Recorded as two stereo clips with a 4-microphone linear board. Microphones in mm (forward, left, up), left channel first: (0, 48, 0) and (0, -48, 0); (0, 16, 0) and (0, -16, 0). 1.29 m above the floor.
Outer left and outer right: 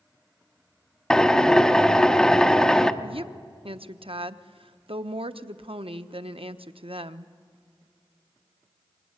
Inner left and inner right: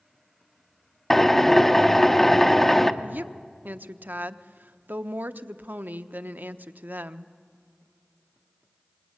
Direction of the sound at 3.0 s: 85° right.